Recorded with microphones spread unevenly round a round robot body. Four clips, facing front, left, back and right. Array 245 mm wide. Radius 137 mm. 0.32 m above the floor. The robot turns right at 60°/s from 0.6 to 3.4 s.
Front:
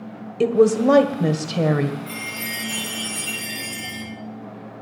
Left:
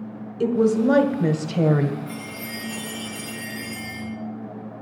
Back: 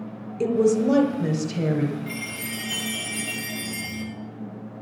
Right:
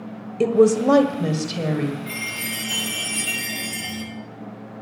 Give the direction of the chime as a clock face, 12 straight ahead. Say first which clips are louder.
Right 2 dB, front 1 dB; 3 o'clock.